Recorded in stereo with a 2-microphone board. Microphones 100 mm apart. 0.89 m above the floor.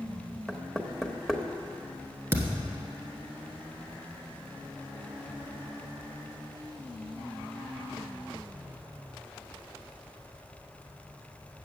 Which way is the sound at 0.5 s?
Centre (ahead or behind).